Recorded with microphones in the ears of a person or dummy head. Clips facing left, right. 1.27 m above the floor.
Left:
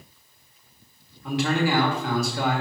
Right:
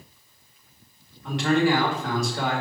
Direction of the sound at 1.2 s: Centre (ahead or behind).